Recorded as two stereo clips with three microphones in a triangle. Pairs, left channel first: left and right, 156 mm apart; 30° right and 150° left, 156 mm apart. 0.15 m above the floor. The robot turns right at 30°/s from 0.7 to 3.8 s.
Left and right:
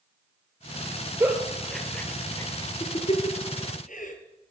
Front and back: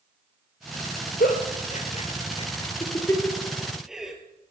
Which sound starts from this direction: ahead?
A giggle, at 1.2 s.